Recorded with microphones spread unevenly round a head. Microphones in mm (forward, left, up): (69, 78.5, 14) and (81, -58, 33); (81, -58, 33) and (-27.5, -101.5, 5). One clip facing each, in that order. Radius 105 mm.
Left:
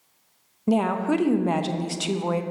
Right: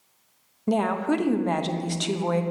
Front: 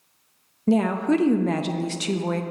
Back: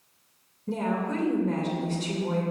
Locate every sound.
0.7 s a woman speaking: 10° left, 0.7 m